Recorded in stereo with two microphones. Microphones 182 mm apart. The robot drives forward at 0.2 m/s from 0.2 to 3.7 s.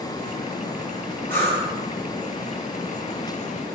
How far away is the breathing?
About 0.8 m.